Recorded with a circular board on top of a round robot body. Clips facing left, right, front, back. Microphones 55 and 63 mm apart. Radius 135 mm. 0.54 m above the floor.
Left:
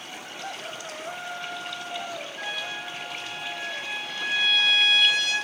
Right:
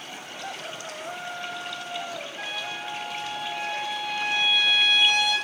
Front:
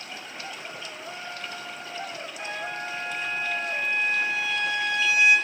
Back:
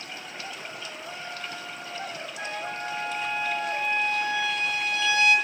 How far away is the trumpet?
About 5.5 m.